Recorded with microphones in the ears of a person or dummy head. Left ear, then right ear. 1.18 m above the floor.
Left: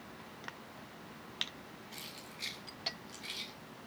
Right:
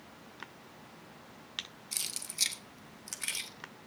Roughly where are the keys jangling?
Right.